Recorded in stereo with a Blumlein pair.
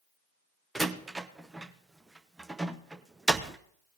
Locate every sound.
0.8 s a door slam: 10° right, 0.8 m